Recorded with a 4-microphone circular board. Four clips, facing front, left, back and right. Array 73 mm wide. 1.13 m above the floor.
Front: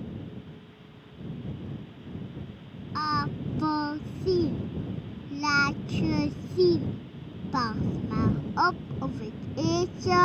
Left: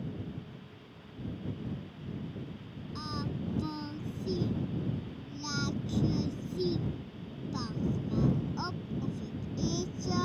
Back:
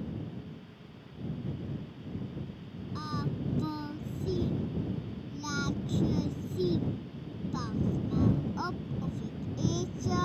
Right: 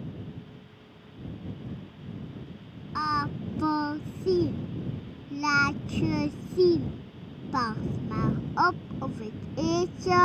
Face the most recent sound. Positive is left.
turn(degrees=-55)